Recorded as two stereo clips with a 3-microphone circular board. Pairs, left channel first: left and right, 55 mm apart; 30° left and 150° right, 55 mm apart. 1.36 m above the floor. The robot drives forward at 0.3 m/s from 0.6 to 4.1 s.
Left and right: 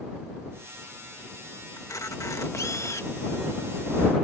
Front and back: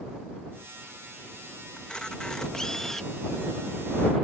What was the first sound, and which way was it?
A camera shutter, 105° left.